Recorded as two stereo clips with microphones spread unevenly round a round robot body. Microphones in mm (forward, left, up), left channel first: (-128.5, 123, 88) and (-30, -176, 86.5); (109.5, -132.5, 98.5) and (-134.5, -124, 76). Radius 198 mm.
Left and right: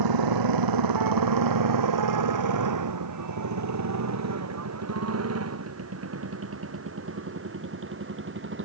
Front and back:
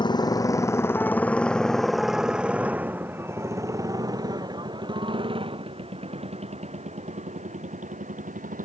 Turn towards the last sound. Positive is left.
turn(degrees=-125)